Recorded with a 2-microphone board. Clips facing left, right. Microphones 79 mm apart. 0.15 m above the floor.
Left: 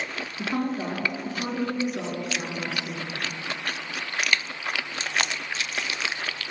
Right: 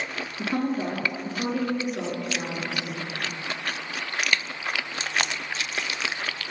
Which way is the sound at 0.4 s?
10° left (ahead or behind).